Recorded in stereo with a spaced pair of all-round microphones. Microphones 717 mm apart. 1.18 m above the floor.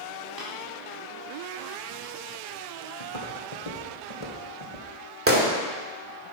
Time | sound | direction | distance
0.4 | tapping | 30° right (ahead or behind) | 3.5 m
3.0 | footsteps | 50° left (ahead or behind) | 2 m
5.3 | a gunshot | 20° right (ahead or behind) | 1.7 m